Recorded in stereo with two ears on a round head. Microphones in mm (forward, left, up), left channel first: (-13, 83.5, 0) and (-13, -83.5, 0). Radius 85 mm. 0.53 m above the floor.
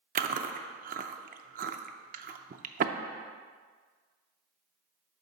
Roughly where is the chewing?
Right.